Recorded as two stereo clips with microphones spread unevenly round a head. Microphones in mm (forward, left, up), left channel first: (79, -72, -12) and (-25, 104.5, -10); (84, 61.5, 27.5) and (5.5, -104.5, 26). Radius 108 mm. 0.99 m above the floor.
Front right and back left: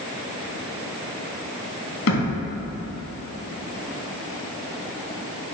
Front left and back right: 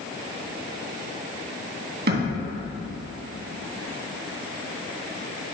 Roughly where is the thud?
Right.